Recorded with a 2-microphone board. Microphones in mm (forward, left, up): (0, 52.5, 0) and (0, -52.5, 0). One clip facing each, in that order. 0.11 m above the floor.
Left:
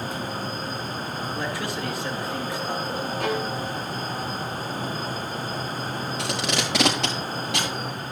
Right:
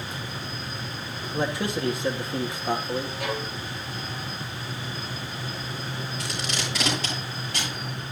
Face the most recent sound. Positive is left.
turn(degrees=80)